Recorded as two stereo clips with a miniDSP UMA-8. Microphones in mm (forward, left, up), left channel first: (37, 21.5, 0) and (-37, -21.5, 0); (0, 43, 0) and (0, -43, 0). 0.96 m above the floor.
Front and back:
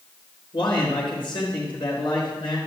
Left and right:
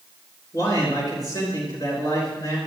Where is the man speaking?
45° left, 3.5 m.